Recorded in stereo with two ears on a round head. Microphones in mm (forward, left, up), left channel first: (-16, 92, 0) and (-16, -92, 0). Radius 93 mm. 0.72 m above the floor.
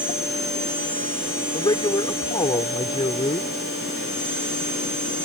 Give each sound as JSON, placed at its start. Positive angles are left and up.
{"t": 1.5, "sound": "a man speaking", "side_deg": 25}